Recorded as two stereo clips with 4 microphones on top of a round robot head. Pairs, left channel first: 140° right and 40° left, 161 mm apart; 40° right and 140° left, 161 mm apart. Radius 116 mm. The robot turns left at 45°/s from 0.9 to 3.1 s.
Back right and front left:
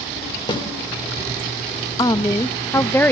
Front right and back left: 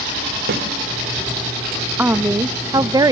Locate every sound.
0.5 s a snare drum: 160° left, 1.5 m
2.0 s a woman speaking: 155° right, 0.5 m; by 3.1 s 155° left, 0.5 m